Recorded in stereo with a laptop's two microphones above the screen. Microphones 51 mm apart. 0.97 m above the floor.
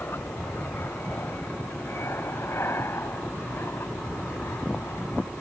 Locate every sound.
0.0 s an aircraft: 50° left (ahead or behind); by 5.4 s 55° left (ahead or behind)